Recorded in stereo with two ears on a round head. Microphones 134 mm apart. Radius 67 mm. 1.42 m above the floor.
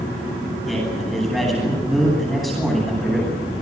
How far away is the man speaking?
About 10 m.